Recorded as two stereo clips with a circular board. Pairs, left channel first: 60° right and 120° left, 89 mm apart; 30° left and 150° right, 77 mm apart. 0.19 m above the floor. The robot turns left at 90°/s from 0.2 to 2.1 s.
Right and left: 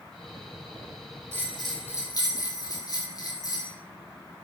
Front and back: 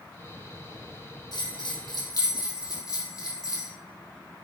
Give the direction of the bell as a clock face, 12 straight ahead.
10 o'clock.